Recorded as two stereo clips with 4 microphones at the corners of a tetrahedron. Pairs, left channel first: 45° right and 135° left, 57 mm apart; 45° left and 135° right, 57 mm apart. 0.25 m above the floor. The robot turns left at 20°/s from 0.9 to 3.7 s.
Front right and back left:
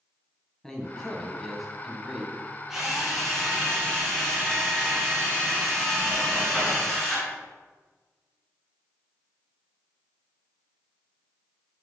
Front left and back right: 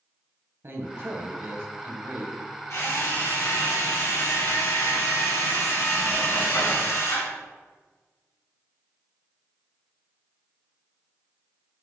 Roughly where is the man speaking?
Behind right.